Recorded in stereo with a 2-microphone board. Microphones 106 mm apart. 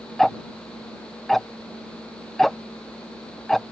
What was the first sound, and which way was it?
Ticking, centre (ahead or behind).